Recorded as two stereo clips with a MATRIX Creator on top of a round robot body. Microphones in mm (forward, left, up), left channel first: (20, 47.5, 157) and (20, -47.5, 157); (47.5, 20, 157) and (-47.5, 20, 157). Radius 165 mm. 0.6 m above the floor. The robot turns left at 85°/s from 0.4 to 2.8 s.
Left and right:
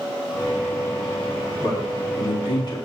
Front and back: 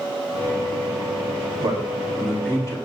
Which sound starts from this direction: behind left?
A man speaking, at 1.6 s.